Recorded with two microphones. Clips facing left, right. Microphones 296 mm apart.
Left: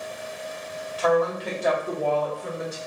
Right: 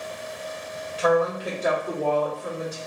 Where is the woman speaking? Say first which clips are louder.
Right 1 dB; 25° right (ahead or behind), 0.9 m; by 2.8 s 25° left (ahead or behind), 1.3 m.